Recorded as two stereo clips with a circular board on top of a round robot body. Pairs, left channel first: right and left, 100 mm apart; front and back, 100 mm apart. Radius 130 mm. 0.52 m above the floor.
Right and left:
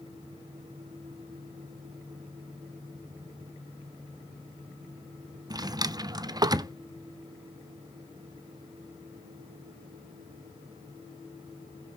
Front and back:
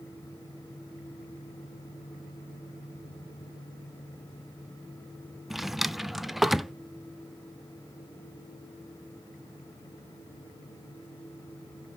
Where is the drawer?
95° left, 0.5 m.